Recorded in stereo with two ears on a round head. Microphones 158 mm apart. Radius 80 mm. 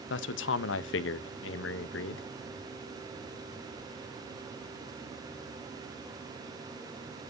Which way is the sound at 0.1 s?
75° left (ahead or behind).